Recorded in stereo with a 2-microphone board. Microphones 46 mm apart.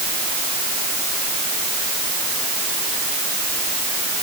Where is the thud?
No thud in this recording.